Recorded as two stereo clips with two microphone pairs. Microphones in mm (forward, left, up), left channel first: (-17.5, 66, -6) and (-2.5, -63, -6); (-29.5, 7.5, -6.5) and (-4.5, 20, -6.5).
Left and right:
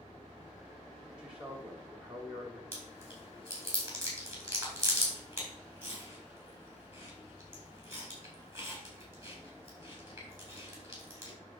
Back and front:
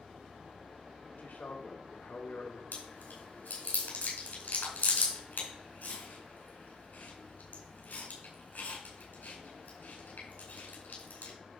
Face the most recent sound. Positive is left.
turn(degrees=-155)